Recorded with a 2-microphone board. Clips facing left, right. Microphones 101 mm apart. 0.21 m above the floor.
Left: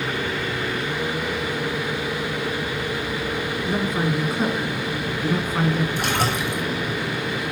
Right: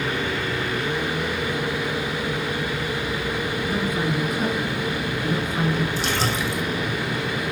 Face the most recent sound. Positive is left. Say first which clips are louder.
# left 1 dB
turn(degrees=55)  # may be behind; listen again after turning